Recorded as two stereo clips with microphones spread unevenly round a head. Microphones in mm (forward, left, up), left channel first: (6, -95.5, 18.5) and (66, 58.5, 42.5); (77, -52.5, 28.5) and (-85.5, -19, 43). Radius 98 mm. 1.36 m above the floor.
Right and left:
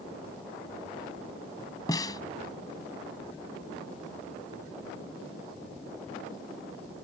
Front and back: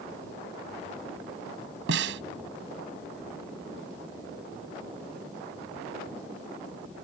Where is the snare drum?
175° left.